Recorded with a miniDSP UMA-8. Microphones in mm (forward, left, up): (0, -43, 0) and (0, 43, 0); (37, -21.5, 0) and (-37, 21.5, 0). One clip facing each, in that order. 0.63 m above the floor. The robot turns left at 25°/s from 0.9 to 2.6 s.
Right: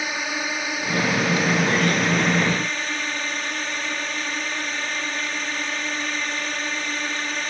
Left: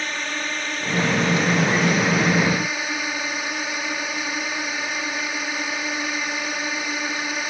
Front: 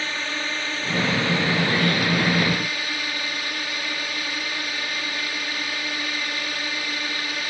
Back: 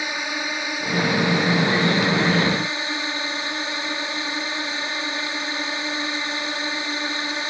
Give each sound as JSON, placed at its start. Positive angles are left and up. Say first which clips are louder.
{"t": 0.0, "sound": "a drone", "louder": "right 1 dB, back 1 dB", "azimuth_deg": -160}